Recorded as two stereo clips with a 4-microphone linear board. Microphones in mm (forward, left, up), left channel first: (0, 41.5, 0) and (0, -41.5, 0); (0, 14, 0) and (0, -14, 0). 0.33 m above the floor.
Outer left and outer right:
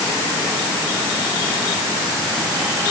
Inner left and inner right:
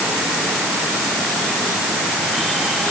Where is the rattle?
I don't hear a rattle.